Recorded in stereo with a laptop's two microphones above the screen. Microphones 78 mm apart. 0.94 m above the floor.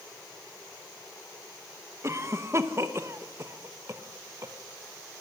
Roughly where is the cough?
Right.